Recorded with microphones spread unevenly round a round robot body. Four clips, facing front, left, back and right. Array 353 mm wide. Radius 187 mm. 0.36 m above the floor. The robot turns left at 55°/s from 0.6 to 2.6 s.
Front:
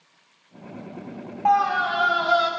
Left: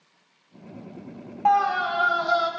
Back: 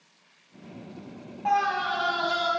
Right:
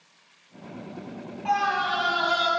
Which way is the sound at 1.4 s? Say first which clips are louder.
Left 4 dB, front 5 dB; 80° left.